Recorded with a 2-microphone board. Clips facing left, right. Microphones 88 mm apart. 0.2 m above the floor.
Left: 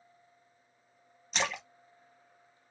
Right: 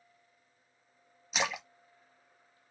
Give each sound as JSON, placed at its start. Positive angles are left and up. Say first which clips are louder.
{"t": 1.3, "sound": "a splash", "louder": "even", "side_deg": -5, "distance_m": 0.7}